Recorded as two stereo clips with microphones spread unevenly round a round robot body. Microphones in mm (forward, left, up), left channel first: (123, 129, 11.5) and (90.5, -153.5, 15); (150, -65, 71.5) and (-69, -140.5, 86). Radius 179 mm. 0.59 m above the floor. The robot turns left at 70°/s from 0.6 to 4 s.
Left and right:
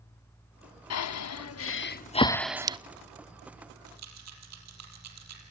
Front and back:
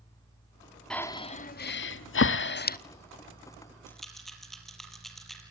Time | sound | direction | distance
0.9 | breathing | 105° left | 0.9 m
3.9 | a rattle | 60° right | 6.5 m